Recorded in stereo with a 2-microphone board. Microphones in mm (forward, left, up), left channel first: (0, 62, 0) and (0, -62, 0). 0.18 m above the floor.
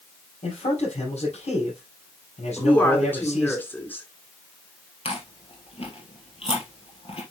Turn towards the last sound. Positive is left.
turn(degrees=55)  # may be behind; listen again after turning